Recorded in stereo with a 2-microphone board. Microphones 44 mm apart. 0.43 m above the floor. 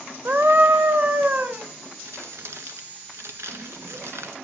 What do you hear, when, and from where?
0.2 s a scream: 55° right (ahead or behind), 1.3 m; by 1.6 s 45° right (ahead or behind), 2.5 m
2.0 s crumpling: 70° right (ahead or behind), 1.9 m